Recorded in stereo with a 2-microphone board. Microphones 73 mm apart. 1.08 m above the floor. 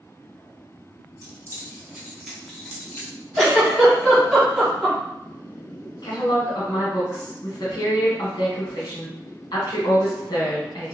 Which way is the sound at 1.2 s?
45° right (ahead or behind).